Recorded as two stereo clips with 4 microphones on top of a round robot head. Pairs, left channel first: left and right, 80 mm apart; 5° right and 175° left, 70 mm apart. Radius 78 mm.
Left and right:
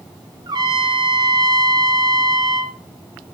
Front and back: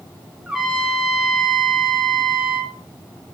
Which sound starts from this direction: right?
A trumpet, at 0.5 s.